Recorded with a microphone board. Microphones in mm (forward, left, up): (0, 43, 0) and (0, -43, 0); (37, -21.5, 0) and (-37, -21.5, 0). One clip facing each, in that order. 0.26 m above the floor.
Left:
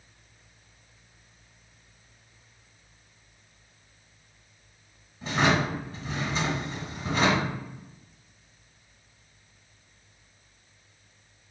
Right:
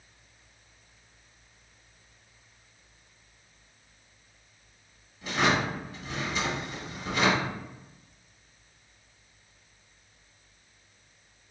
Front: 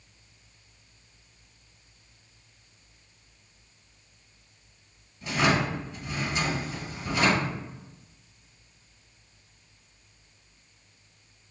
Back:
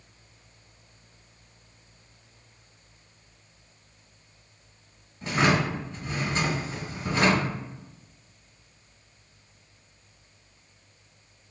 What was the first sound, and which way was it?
A drawer, 140° left.